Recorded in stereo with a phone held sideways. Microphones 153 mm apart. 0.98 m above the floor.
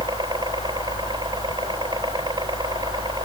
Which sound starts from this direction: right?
A helicopter, at 0.0 s.